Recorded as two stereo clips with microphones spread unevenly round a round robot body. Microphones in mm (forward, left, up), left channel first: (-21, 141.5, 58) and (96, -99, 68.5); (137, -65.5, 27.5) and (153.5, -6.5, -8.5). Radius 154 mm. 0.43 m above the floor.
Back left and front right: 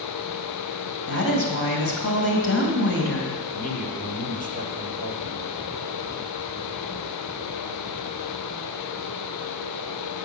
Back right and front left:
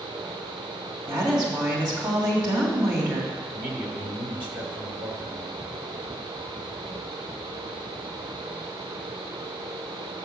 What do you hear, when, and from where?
1.1 s a woman speaking: 80° left, 3 m
3.5 s a man speaking: 65° left, 2.0 m